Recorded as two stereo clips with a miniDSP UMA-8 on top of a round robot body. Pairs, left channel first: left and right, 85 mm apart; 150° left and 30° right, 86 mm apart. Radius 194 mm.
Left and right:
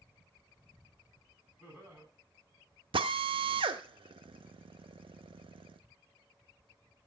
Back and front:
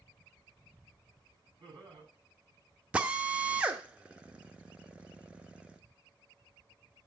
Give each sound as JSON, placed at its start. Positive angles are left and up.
{"t": 1.6, "sound": "laughter", "azimuth_deg": -10, "distance_m": 8.0}
{"t": 2.9, "sound": "a drill", "azimuth_deg": -105, "distance_m": 0.6}